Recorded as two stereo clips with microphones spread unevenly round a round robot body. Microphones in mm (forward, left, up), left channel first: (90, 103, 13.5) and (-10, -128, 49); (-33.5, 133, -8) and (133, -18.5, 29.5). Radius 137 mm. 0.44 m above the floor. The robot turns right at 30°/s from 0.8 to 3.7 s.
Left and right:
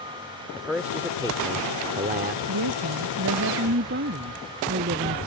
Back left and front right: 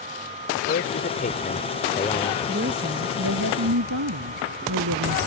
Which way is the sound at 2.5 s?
100° right.